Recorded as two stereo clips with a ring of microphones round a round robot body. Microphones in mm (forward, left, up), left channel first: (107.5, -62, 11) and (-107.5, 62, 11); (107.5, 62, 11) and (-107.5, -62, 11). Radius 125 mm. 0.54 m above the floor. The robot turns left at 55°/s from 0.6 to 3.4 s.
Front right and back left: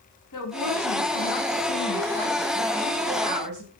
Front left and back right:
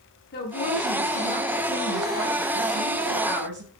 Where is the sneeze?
I don't hear a sneeze.